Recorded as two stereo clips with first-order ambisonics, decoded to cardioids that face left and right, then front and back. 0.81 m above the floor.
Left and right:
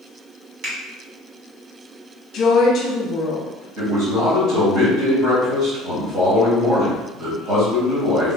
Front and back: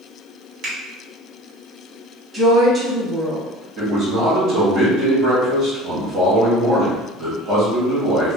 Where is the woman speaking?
110° left, 0.9 m.